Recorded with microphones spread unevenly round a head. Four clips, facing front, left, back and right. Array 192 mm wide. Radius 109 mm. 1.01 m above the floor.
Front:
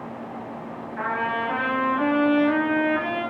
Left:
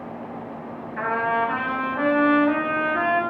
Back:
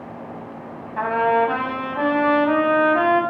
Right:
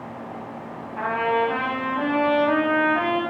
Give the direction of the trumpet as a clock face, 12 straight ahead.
6 o'clock.